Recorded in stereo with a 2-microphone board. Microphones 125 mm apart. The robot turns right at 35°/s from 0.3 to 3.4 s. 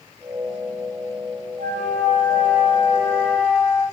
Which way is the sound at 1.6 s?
80° right.